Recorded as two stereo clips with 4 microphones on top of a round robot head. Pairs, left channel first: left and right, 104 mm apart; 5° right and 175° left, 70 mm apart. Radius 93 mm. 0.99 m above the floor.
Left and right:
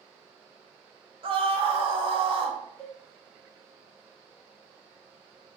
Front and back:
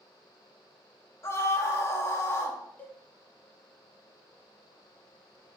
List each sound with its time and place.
1.2 s a scream: 55° right, 1.2 m
2.8 s a cowbell: 45° left, 0.9 m